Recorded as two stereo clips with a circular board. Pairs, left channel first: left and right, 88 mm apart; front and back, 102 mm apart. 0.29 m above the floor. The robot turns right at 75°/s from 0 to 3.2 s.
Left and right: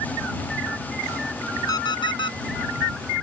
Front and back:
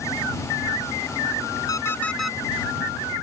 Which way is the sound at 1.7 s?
50° left.